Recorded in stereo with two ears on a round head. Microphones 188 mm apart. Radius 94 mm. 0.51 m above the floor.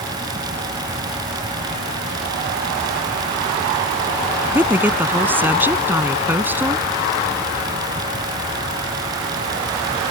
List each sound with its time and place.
4.5 s a woman speaking: 10° right (ahead or behind)